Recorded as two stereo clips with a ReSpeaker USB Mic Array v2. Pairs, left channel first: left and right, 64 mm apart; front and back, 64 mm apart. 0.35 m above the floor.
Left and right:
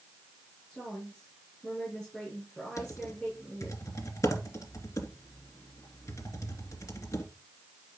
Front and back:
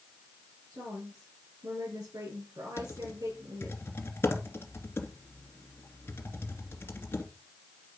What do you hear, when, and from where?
0.7 s a woman speaking: 165° left, 7 m
2.8 s typing on a keyboard: 50° left, 2 m